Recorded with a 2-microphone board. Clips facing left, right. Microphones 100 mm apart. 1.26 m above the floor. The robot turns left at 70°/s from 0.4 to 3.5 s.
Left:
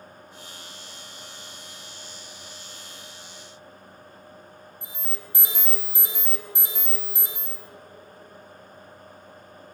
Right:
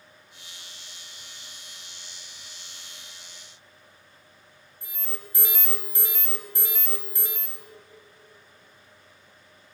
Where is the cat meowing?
No cat meowing in this recording.